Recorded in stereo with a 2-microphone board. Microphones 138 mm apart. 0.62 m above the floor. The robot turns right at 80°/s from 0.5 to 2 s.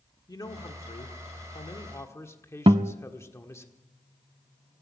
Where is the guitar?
45° right (ahead or behind), 0.6 m.